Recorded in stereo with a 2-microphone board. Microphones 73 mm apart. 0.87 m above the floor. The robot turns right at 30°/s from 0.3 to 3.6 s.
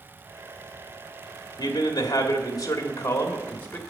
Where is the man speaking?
95° left, 1.9 m; by 3.8 s 155° left, 1.9 m.